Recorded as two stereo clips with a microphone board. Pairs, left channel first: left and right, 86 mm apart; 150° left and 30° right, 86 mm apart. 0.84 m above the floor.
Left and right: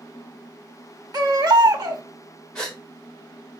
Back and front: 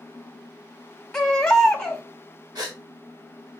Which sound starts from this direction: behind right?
A baby crying, at 1.1 s.